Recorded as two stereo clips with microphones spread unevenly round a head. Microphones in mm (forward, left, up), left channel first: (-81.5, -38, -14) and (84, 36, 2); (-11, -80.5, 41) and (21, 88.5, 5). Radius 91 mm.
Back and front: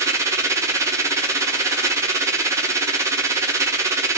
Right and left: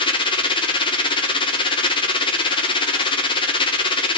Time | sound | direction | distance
0.0 | a machine running | 45° right | 0.8 m